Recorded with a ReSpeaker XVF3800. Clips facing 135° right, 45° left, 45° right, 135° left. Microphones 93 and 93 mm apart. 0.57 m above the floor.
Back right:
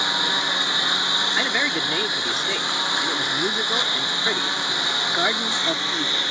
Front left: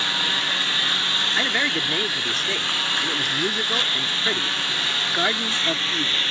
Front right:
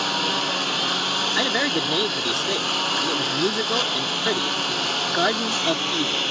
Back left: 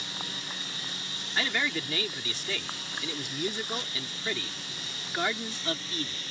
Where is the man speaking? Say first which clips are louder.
Front left 1 dB, front right 5 dB; 50° right.